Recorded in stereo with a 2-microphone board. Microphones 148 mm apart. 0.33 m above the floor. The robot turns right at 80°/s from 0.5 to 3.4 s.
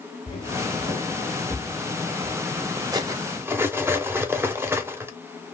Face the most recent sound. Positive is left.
turn(degrees=-15)  # may be behind; listen again after turning